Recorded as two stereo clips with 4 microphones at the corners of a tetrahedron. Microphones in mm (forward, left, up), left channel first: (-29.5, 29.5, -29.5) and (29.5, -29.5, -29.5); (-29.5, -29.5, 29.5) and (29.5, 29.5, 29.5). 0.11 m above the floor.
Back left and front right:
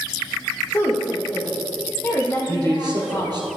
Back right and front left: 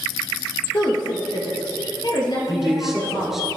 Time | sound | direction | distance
0.7 | a woman speaking | 165° right | 2.5 m
2.5 | a man speaking | 40° right | 2.5 m